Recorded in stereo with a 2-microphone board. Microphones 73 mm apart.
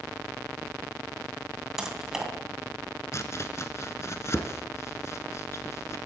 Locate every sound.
1.8 s typing on a keyboard: 5° right (ahead or behind), 2.5 m
3.1 s chopping: 45° left (ahead or behind), 1.0 m